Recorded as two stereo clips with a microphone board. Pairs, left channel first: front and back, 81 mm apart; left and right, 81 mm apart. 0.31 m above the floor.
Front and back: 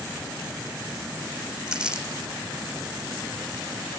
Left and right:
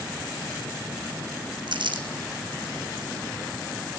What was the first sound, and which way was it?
Crumpling, 100° right.